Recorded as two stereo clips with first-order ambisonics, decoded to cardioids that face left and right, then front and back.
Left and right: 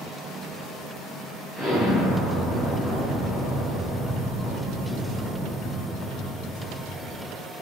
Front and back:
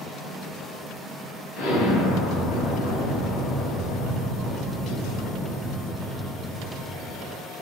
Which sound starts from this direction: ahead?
An explosion, at 1.6 s.